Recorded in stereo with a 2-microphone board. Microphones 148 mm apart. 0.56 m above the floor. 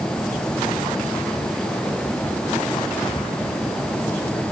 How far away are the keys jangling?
I don't hear keys jangling.